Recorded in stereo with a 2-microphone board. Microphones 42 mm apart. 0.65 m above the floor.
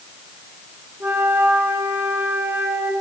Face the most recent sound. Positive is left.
turn(degrees=-60)  # may be behind; listen again after turning